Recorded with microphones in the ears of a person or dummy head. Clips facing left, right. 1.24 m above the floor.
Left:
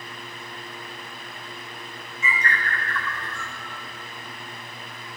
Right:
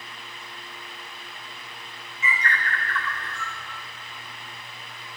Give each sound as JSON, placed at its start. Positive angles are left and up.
{"t": 2.2, "sound": "a bird", "side_deg": 30, "distance_m": 1.1}